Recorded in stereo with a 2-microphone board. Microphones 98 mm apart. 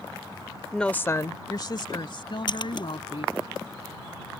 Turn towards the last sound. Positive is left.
turn(degrees=50)  # may be behind; listen again after turning